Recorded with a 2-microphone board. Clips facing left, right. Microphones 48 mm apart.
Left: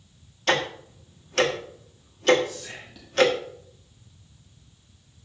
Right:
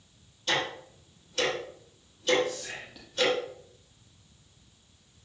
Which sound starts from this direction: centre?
Whispering, at 2.4 s.